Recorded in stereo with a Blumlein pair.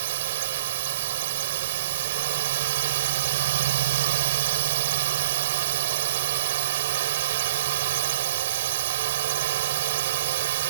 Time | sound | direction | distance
0.0 | a drone | 55° right | ?